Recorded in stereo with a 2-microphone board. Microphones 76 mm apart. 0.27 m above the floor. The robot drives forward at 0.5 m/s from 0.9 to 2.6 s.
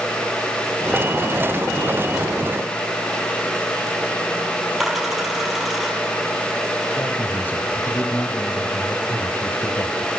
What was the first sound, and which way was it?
A dropped coin, 5° right (ahead or behind).